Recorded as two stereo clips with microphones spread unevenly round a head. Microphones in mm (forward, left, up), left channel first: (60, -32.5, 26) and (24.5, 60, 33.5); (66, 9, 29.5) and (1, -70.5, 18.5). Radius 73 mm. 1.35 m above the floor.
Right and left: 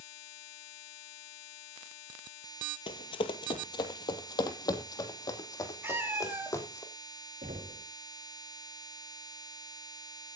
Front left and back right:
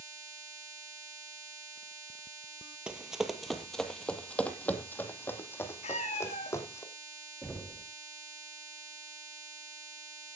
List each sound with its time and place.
2.9 s running footsteps: 45° right, 2.0 m; by 6.8 s 10° right, 4 m
5.8 s a cat meowing: 45° left, 6 m
7.4 s knocking: 130° left, 2.5 m